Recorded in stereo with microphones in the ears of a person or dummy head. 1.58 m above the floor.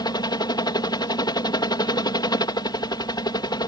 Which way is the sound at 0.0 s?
15° left (ahead or behind).